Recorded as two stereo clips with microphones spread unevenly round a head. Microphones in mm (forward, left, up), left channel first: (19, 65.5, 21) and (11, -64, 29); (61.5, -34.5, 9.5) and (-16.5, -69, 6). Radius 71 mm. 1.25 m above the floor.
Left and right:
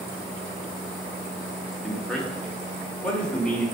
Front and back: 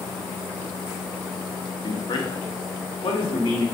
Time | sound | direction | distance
1.8 | a man speaking | straight ahead | 1.4 m